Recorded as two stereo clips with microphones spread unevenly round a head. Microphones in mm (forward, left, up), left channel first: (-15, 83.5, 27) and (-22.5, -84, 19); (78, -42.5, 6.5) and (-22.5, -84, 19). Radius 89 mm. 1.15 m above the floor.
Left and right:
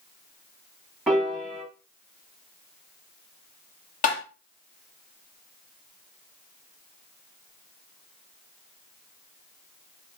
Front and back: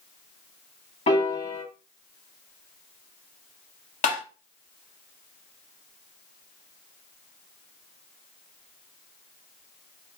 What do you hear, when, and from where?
1.1 s a piano: 5° right, 1.2 m
4.0 s tapping: 35° left, 1.1 m